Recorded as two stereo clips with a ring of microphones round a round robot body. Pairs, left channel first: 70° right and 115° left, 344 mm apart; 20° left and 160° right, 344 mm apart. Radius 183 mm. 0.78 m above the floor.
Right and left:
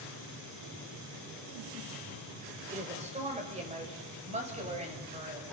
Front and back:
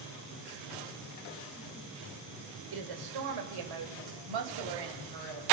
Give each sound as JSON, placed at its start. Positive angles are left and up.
{"t": 2.7, "sound": "a woman speaking", "azimuth_deg": -175, "distance_m": 3.5}